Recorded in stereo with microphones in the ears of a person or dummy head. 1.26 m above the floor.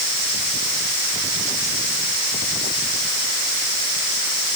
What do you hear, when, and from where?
Only background noise.